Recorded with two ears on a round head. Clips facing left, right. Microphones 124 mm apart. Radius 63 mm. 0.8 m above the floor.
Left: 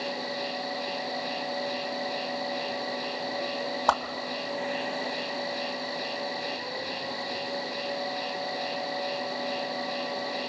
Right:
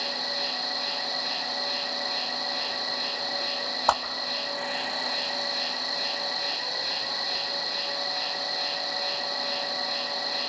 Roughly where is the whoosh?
Centre.